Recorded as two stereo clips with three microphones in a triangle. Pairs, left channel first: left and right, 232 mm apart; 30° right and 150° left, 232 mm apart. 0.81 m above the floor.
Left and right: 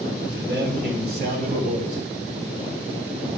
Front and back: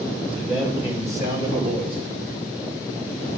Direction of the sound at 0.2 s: 125° right.